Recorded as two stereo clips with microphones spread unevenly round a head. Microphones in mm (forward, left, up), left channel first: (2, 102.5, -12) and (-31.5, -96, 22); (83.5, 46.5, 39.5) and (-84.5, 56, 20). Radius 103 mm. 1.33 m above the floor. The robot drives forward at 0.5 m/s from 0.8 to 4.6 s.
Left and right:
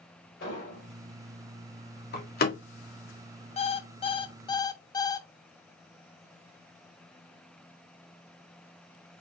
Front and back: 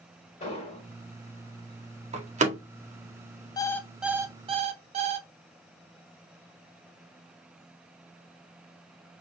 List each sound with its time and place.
0.4 s an explosion: 40° left, 3 m; by 0.9 s 45° left, 3 m
2.1 s a door slam: 125° left, 1.7 m; by 2.6 s 130° left, 1.8 m
3.6 s an alarm clock: 30° left, 0.6 m; by 5.3 s 155° left, 0.6 m